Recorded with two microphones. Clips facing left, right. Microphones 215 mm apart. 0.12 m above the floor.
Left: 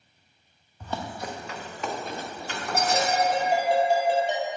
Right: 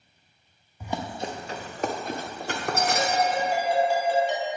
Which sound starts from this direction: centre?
Running footsteps, at 0.8 s.